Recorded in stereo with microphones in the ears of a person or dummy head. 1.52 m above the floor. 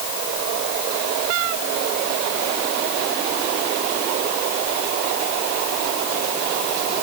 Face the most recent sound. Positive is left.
No sound to turn to.